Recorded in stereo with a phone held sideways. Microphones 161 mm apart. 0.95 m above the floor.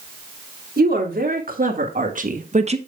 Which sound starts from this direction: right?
A woman speaking, at 0.8 s.